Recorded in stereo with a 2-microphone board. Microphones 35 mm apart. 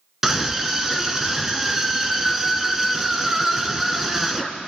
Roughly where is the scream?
Centre.